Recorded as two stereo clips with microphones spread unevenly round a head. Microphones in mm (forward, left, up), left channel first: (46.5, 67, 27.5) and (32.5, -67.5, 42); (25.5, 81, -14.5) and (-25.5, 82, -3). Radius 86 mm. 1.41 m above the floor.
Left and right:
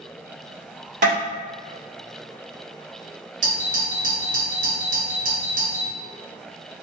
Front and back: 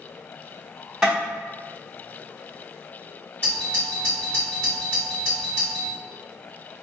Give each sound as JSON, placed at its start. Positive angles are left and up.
{"t": 1.0, "sound": "tapping", "azimuth_deg": -120, "distance_m": 1.5}
{"t": 3.4, "sound": "a doorbell", "azimuth_deg": -110, "distance_m": 1.6}